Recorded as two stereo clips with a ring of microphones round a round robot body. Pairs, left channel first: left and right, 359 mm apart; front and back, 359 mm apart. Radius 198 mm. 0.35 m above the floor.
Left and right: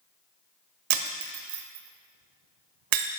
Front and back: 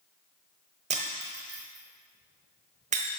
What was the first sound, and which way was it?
Breaking glass, 110° right.